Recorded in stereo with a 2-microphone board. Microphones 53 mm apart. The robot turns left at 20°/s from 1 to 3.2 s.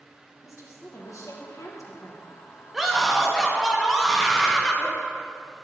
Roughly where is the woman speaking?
Left.